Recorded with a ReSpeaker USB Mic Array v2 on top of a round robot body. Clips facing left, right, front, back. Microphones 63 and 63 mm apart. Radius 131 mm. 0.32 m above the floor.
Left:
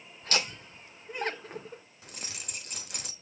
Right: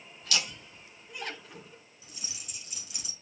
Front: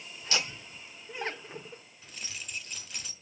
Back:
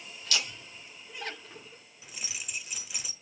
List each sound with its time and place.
0.2 s laughter: 55° left, 1.5 m
2.0 s keys jangling: 100° left, 1.2 m